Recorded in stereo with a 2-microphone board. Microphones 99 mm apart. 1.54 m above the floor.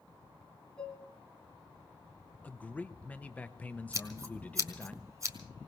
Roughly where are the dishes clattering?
Centre.